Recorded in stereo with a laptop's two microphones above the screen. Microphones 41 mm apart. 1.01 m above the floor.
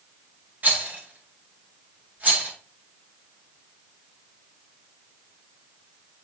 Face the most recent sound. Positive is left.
turn(degrees=-45)  # may be behind; listen again after turning